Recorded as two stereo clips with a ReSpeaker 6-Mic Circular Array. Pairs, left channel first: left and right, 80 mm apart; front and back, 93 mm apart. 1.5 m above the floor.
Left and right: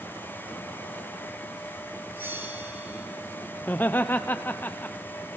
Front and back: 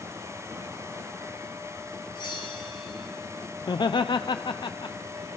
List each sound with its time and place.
2.1 s a bell: 30° right, 4 m
3.6 s laughter: 25° left, 0.7 m